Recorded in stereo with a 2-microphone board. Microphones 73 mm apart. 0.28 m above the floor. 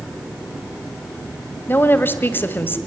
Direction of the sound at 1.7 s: 30° left (ahead or behind).